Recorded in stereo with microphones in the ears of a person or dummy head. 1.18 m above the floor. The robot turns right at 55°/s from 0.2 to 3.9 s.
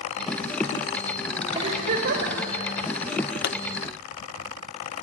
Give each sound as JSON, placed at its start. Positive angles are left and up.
{"t": 1.6, "sound": "a giggle", "azimuth_deg": -150, "distance_m": 3.0}
{"t": 3.4, "sound": "a pop", "side_deg": 55, "distance_m": 0.6}